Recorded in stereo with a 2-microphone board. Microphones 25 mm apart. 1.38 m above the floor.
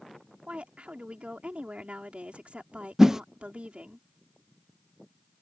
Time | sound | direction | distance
0.5 | a woman speaking | 60° right (ahead or behind) | ?
3.0 | a whoosh | 20° right (ahead or behind) | ?